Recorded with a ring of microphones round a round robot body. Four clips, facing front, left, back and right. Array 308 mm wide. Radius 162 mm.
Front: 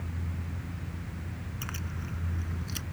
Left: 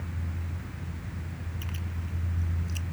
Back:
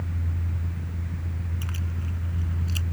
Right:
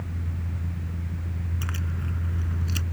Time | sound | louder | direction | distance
1.6 | keys jangling | right 5 dB, back 3 dB | 70° right | ?